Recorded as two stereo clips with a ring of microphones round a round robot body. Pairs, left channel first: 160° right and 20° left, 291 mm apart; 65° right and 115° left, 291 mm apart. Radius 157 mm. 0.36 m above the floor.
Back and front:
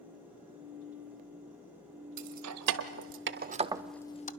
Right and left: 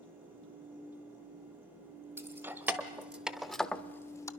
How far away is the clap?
I don't hear a clap.